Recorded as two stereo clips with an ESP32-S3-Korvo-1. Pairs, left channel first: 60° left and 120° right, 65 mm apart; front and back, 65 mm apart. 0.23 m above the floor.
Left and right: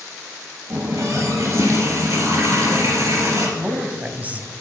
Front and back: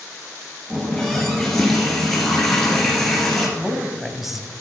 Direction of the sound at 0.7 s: 85° right.